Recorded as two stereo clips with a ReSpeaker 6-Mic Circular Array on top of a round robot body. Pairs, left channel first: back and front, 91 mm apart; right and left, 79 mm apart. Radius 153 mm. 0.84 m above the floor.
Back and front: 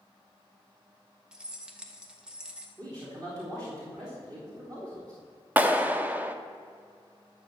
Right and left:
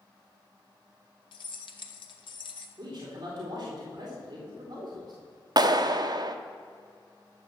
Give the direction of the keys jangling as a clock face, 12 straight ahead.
3 o'clock.